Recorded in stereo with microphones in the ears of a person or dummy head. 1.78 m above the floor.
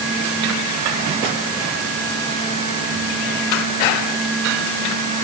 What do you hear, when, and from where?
Only background noise.